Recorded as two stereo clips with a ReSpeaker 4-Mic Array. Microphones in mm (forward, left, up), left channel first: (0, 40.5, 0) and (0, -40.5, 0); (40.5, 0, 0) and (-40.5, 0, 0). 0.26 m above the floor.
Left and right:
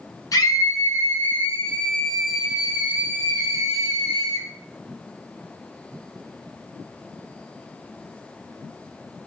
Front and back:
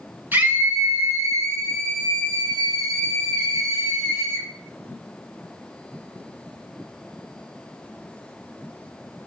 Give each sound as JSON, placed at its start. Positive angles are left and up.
{"t": 0.3, "sound": "a scream", "azimuth_deg": 120, "distance_m": 3.0}